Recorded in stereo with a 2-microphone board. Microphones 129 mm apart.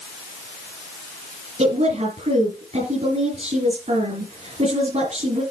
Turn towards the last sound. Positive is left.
turn(degrees=-60)  # may be behind; listen again after turning